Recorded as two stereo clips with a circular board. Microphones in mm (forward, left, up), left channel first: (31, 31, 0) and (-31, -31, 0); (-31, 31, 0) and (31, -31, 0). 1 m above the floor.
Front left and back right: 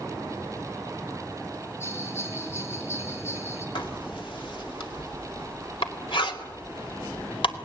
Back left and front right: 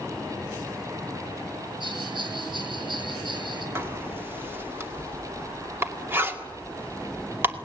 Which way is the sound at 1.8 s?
20° right.